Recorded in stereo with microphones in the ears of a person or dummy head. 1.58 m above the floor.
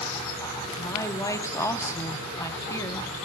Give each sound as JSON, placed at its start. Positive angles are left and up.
{"t": 0.8, "sound": "a woman speaking", "side_deg": 20, "distance_m": 1.1}